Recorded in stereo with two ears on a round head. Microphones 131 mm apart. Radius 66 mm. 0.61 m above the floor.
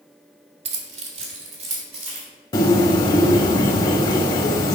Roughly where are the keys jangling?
Right.